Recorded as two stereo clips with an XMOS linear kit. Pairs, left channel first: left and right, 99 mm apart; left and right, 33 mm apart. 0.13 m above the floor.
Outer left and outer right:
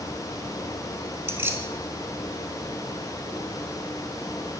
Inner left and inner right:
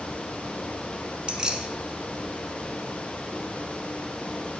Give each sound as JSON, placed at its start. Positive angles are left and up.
{"t": 1.3, "sound": "keys jangling", "side_deg": -20, "distance_m": 0.8}